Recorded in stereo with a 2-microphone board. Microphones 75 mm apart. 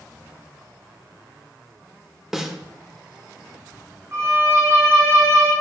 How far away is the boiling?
No boiling in this recording.